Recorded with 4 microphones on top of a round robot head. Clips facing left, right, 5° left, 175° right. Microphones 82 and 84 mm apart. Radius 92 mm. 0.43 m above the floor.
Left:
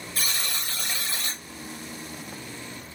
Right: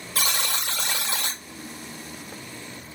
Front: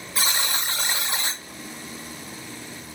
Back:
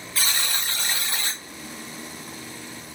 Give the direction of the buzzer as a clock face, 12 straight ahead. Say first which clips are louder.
Right 6 dB, front 2 dB; 2 o'clock.